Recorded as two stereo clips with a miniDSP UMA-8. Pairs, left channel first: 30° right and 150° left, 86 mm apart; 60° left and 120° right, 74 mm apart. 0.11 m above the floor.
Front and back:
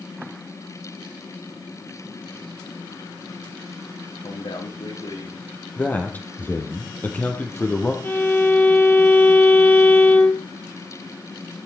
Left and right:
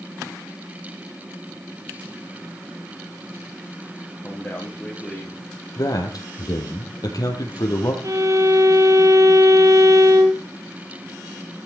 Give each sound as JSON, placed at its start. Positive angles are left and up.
{"t": 4.2, "sound": "a man speaking", "azimuth_deg": -15, "distance_m": 8.0}
{"t": 5.8, "sound": "a man speaking", "azimuth_deg": 35, "distance_m": 4.0}
{"t": 8.0, "sound": "a violin", "azimuth_deg": -95, "distance_m": 2.5}